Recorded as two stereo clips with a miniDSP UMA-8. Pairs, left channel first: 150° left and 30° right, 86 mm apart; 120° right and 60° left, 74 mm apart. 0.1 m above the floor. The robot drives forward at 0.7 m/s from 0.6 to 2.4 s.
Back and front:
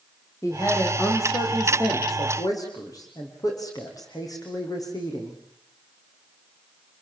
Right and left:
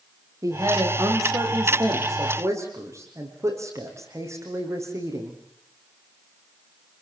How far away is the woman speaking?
About 7.5 m.